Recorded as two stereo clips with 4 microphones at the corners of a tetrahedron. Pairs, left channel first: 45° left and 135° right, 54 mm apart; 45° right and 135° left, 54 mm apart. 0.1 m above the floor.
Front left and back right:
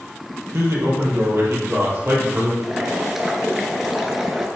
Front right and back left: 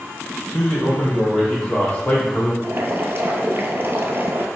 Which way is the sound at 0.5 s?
130° right.